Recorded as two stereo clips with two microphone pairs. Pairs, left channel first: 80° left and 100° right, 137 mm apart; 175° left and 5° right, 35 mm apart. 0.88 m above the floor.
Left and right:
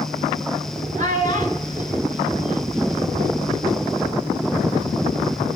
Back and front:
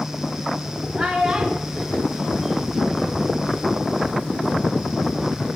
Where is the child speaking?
80° right, 6 m; by 3.3 s 110° right, 2.5 m.